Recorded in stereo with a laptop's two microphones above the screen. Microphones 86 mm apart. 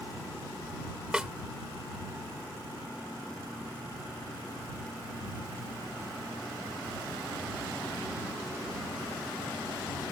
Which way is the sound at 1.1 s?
10° right (ahead or behind).